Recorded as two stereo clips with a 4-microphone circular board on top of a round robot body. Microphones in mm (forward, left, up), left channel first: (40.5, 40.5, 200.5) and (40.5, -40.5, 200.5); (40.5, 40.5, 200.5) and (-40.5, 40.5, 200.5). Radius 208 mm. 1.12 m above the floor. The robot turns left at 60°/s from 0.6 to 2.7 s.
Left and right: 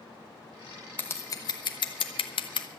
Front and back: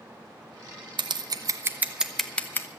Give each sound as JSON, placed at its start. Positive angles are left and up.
{"t": 1.0, "sound": "scissors", "azimuth_deg": 160, "distance_m": 0.7}